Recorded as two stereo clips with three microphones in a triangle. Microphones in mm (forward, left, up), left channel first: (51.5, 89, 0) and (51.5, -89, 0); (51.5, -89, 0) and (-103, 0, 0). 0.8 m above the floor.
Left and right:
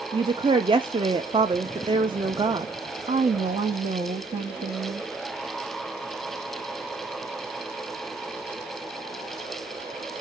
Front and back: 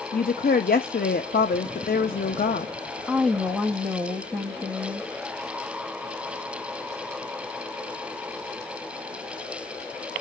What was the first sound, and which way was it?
A woman speaking, 35° right.